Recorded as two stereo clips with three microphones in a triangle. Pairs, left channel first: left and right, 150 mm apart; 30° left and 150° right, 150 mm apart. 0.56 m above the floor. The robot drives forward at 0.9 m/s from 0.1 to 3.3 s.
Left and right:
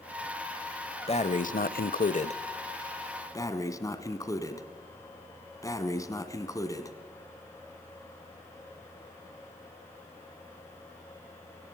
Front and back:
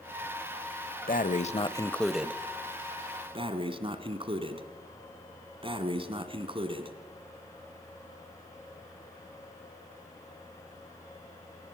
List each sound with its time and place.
1.1 s breathing: 45° left, 0.8 m; by 7.0 s 160° left, 1.5 m